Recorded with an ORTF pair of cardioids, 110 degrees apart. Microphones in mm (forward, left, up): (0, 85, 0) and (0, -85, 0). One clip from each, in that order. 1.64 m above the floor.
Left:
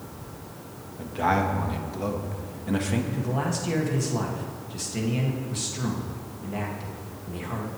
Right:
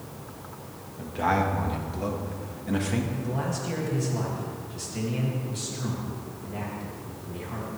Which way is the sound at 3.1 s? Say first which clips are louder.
Left 2 dB; 30° left.